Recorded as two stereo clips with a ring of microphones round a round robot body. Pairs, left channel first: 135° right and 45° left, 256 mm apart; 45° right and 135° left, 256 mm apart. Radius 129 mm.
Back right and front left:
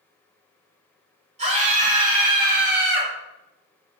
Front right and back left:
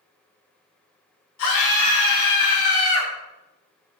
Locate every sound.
1.4 s a scream: 20° right, 4 m; by 3.1 s 5° right, 3.5 m